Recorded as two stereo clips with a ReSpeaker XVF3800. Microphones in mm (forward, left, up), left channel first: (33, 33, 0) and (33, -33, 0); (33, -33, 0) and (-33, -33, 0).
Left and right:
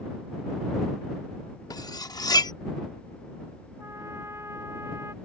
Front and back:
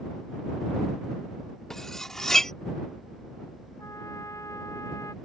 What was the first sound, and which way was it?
Cutlery clinking, 80° left.